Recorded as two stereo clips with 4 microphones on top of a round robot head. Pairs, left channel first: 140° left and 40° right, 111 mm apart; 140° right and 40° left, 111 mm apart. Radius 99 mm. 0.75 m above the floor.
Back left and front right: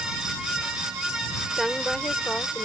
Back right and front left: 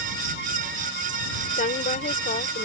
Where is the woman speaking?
130° right; by 2.6 s 145° right.